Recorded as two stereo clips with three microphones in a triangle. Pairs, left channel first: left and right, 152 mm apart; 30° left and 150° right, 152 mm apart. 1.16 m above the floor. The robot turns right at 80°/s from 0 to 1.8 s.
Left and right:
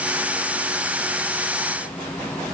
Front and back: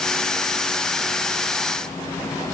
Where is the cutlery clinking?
I don't hear cutlery clinking.